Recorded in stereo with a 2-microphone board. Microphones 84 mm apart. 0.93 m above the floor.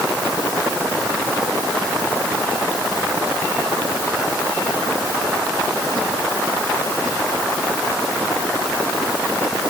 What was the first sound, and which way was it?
Only background noise.